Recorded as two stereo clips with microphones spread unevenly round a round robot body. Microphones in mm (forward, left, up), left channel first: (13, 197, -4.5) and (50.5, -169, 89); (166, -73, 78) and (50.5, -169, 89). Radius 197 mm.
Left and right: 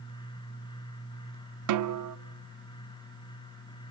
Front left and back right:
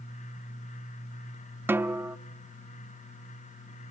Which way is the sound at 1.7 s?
65° right.